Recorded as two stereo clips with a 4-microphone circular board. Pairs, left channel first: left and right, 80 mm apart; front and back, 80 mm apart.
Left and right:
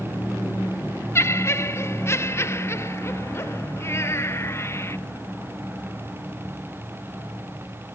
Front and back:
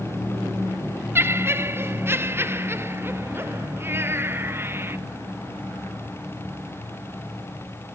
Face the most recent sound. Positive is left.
turn(degrees=130)